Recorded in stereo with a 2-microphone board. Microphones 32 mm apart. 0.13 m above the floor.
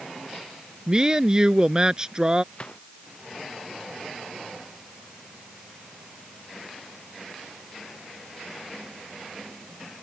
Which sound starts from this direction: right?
A woman speaking, at 0.9 s.